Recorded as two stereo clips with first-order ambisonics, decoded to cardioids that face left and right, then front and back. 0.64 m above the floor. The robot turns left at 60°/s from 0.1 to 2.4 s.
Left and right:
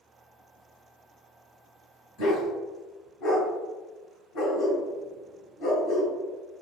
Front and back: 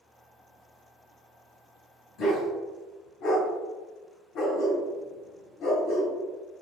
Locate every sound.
2.2 s a dog barking: 55° left, 1.6 m; by 6.1 s 45° left, 1.6 m